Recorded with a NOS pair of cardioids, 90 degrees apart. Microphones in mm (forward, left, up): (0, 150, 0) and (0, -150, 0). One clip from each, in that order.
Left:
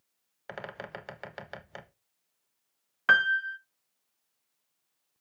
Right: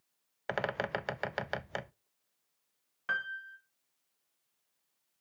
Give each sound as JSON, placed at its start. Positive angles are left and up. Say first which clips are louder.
{"t": 0.5, "sound": "a bird", "louder": "right 7 dB", "azimuth_deg": -35, "distance_m": 0.6}
{"t": 3.1, "sound": "a piano", "louder": "left 13 dB", "azimuth_deg": 55, "distance_m": 0.6}